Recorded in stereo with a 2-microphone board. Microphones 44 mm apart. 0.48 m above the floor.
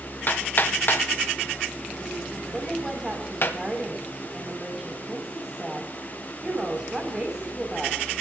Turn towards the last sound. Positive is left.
turn(degrees=-15)  # may be behind; listen again after turning